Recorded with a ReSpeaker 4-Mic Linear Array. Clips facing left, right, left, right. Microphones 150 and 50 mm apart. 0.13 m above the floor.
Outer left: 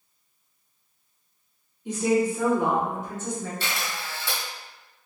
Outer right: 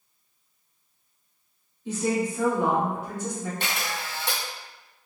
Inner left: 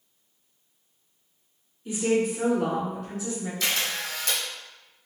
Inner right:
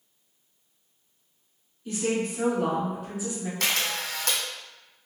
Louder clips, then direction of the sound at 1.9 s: Outer left 3 dB, inner left 4 dB; 15° left (ahead or behind).